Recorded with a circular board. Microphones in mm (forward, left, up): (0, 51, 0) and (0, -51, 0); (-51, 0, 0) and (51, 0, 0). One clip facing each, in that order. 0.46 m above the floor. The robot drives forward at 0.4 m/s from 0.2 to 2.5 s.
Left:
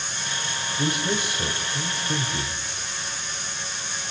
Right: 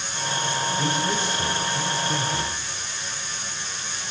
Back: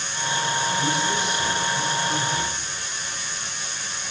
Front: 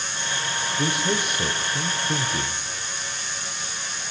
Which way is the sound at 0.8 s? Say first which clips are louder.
Left 3 dB, back 1 dB; 10° left.